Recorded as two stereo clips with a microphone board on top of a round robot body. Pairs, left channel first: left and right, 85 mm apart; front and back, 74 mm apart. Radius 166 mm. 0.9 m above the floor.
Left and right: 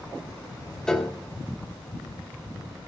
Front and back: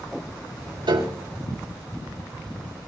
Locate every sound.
0.9 s a piano: 175° left, 3 m